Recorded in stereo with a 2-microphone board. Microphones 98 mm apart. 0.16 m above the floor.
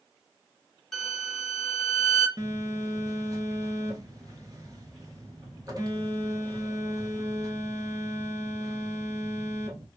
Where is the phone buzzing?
40° right (ahead or behind), 0.8 m.